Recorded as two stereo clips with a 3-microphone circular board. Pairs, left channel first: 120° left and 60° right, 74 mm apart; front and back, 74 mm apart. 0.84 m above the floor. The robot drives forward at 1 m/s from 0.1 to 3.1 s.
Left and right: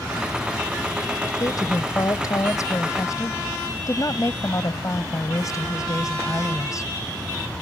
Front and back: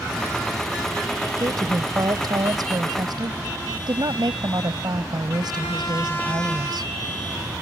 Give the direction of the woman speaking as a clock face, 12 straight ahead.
7 o'clock.